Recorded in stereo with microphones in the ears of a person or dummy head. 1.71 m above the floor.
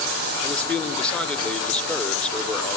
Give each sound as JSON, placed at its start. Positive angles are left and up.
{"t": 0.4, "sound": "a man speaking", "side_deg": 5, "distance_m": 1.3}